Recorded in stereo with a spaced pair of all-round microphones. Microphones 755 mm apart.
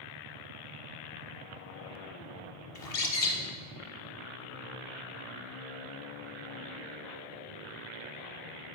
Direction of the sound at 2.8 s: 55° left (ahead or behind).